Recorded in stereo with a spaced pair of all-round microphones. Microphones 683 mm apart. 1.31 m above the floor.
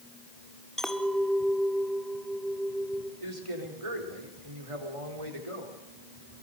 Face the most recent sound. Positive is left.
turn(degrees=-45)  # may be behind; listen again after turning